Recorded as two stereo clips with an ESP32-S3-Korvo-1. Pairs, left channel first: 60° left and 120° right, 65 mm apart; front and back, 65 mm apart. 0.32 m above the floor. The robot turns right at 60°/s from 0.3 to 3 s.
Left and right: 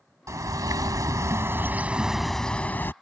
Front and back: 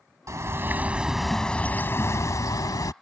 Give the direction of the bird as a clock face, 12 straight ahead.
5 o'clock.